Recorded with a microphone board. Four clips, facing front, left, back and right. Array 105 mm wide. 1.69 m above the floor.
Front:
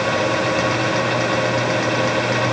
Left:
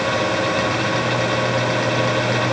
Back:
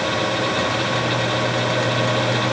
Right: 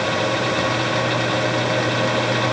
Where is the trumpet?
I don't hear a trumpet.